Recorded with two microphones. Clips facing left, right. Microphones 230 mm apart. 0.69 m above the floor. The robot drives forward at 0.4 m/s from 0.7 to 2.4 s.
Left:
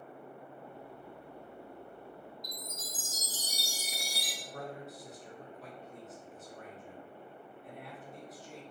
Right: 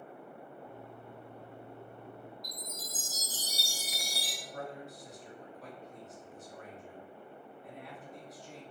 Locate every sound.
2.4 s a chime: 20° left (ahead or behind), 1.9 m
4.4 s a man speaking: centre (ahead or behind), 0.9 m